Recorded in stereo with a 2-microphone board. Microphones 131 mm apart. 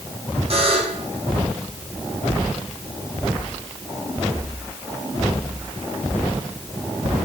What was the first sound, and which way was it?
A buzzer, 50° right (ahead or behind).